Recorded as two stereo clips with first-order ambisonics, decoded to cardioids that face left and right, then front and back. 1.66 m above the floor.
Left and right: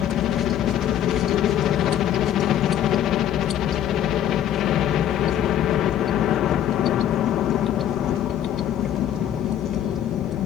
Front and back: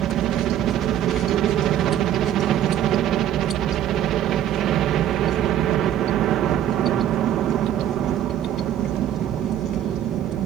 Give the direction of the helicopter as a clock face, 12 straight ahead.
8 o'clock.